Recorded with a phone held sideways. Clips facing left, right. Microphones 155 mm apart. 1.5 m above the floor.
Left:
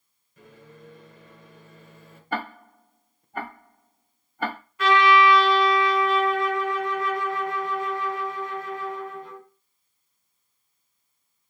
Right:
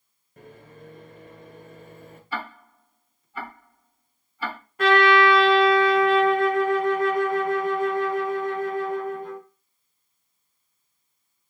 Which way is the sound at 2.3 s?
50° left (ahead or behind).